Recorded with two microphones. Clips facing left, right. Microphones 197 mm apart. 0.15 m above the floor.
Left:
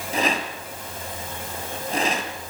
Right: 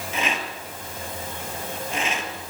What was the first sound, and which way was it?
A rattle, 40° left (ahead or behind).